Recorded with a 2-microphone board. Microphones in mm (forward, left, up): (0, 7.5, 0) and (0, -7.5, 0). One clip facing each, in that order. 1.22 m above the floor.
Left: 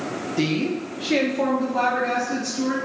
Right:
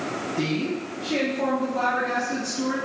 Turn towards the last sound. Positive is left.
turn(degrees=50)  # may be behind; listen again after turning